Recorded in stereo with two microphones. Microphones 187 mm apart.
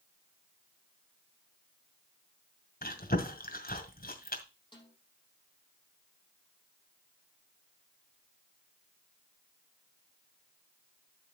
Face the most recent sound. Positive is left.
turn(degrees=25)  # may be behind; listen again after turning